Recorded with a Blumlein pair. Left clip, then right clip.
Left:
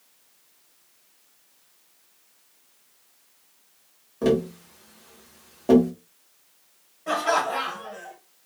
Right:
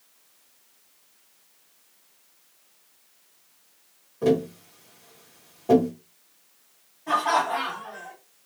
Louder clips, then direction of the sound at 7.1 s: Right 1 dB; 45° left.